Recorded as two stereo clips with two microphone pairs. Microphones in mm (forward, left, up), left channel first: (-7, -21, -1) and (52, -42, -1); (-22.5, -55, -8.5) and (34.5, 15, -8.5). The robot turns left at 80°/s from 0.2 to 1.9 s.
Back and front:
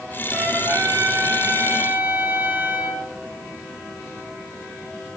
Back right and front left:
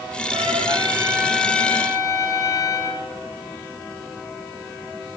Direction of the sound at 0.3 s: 50° left.